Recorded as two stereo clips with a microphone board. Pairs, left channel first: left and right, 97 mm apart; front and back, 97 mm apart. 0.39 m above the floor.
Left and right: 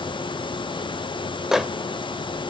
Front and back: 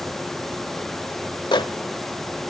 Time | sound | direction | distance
1.5 | a microwave | 5° right | 0.9 m